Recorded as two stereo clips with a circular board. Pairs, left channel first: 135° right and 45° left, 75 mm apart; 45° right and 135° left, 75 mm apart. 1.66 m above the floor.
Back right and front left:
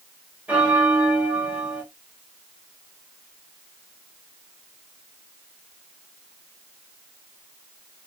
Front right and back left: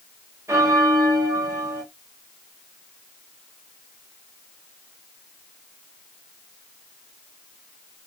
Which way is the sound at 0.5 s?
105° left.